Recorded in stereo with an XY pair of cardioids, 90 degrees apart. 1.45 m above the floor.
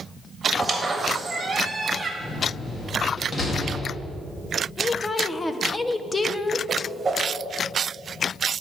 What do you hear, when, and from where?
0.5 s a squeak: 30° right, 1.7 m
2.2 s a door slam: 35° left, 2.0 m
4.8 s a woman speaking: 25° left, 0.8 m
6.7 s a whoosh: 30° right, 1.7 m